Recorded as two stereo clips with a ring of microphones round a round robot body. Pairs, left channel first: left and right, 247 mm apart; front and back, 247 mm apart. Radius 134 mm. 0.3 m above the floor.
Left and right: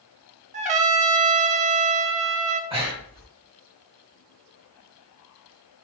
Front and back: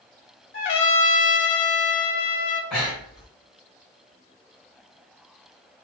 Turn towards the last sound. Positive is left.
turn(degrees=-85)